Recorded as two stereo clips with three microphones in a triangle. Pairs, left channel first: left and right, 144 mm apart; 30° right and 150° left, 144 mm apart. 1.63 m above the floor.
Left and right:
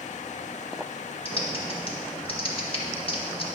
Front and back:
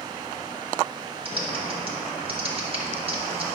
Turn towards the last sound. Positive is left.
turn(degrees=120)